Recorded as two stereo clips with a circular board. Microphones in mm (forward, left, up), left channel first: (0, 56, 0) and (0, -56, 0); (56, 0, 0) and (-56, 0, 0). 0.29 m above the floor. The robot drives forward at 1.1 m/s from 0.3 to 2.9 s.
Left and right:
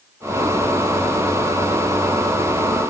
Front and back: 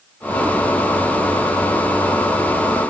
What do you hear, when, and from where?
Only background noise.